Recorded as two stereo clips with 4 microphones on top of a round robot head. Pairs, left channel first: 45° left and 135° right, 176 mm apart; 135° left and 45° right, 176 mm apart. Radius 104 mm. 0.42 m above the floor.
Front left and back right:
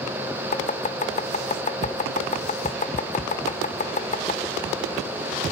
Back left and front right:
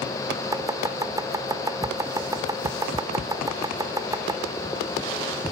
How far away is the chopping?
About 1.6 m.